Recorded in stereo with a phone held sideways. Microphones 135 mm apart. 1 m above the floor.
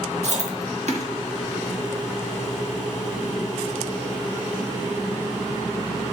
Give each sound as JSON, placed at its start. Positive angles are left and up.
{"t": 0.2, "sound": "chewing", "side_deg": -60, "distance_m": 1.6}